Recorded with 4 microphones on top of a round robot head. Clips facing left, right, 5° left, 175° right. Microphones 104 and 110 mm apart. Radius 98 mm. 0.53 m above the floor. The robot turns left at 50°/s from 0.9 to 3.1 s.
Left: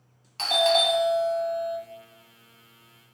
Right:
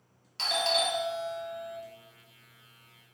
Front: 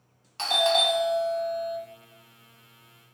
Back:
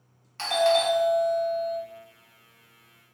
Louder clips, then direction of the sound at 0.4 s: Left 7 dB, back 3 dB; 75° left.